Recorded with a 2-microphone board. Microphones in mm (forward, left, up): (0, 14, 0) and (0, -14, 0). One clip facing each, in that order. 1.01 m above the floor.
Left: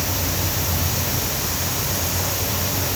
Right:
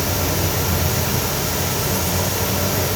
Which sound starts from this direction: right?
An insect, at 0.0 s.